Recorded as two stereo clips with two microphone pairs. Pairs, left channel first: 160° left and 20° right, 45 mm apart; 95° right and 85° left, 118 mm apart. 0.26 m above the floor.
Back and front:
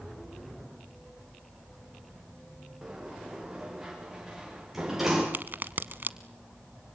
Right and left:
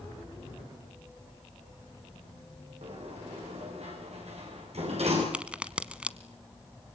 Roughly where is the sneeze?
I don't hear a sneeze.